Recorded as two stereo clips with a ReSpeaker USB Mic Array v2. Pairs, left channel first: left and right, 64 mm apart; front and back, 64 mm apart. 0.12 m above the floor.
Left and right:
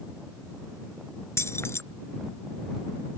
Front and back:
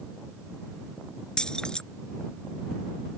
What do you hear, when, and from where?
1.4 s keys jangling: 75° left